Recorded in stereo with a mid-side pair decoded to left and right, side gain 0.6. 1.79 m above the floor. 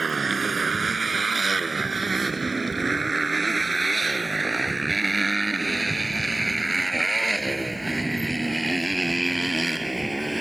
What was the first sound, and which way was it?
A motorcycle, 20° right.